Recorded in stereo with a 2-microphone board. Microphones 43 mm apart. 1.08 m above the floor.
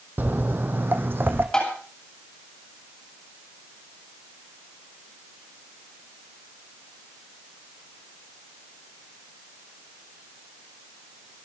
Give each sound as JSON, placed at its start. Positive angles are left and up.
{"t": 0.2, "sound": "footsteps", "side_deg": -45, "distance_m": 1.5}
{"t": 1.5, "sound": "tapping", "side_deg": 15, "distance_m": 8.5}